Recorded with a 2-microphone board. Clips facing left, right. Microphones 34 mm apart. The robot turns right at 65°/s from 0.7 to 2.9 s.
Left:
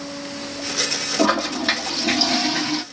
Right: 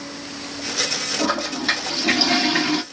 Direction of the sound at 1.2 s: 130° left.